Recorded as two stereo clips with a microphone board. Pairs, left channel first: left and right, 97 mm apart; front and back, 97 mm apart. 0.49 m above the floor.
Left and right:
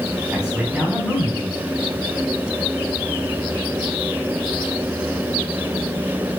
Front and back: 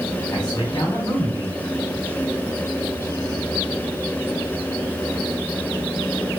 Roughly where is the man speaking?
Ahead.